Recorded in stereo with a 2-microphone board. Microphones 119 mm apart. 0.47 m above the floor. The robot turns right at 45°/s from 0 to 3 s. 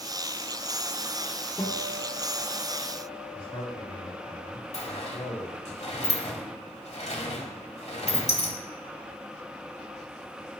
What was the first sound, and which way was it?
A guitar, 155° left.